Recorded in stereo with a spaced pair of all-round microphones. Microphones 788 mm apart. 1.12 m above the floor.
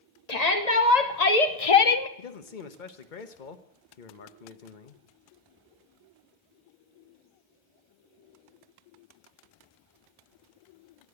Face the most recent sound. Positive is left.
turn(degrees=75)  # may be behind; listen again after turning